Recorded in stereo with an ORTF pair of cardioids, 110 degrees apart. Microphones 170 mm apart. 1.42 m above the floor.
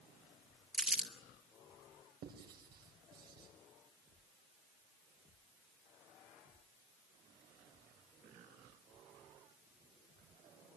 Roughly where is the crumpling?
Ahead.